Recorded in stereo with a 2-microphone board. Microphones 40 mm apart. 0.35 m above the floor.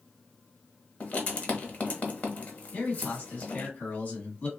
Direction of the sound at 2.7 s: 40° left (ahead or behind).